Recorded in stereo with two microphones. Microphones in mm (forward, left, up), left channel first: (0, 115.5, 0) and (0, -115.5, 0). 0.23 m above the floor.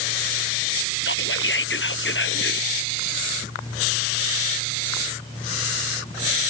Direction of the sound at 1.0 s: 50° left (ahead or behind).